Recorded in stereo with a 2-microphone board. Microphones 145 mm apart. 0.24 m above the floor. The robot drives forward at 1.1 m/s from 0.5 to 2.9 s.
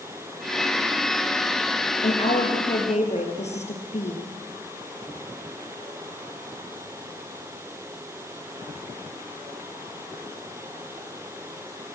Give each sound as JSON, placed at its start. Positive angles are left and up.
{"t": 2.0, "sound": "a woman speaking", "side_deg": 55, "distance_m": 6.0}